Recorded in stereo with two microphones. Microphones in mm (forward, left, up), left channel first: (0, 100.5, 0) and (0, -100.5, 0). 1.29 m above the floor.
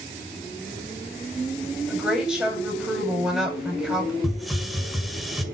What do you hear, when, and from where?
1.9 s a woman speaking: 5° right (ahead or behind), 7.5 m
4.2 s a hiss: centre (ahead or behind), 2 m